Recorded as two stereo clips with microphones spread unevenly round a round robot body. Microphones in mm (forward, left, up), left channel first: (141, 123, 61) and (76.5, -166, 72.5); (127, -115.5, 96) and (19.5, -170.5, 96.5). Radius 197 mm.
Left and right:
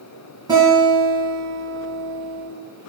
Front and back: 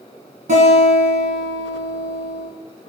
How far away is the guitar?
About 2 m.